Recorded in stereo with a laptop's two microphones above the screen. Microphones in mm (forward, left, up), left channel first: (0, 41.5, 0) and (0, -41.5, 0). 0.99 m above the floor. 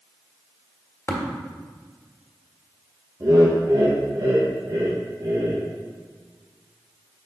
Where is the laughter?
50° right (ahead or behind), 0.8 m.